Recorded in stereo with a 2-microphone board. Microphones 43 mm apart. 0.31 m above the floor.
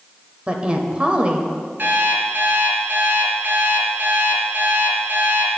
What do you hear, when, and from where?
0.5 s a woman speaking: 25° right (ahead or behind), 0.9 m
1.8 s an alarm clock: 50° right (ahead or behind), 2.0 m